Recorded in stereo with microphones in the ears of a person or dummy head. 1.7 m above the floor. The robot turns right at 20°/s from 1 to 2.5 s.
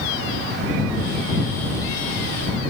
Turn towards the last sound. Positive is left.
No sound to turn to.